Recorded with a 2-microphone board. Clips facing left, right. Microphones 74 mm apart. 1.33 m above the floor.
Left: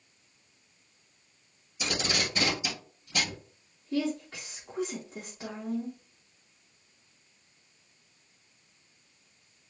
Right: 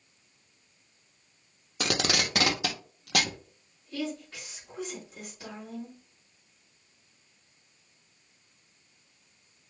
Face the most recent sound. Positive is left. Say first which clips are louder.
# left 4 dB
turn(degrees=50)  # may be behind; listen again after turning